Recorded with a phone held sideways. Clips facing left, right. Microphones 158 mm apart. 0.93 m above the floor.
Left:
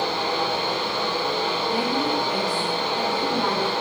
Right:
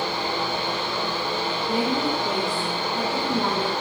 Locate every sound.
0.0 s a fan: 75° left (ahead or behind), 0.8 m
1.7 s a woman speaking: 30° right (ahead or behind), 0.5 m